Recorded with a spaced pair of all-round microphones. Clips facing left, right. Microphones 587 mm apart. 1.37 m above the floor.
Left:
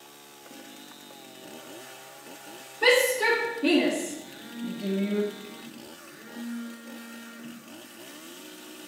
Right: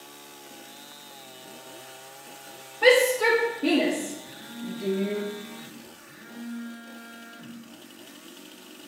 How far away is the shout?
About 4 m.